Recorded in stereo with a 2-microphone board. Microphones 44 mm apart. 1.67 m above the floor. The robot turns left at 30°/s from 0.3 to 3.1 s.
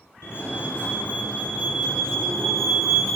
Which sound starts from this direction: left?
A fire alarm, at 0.2 s.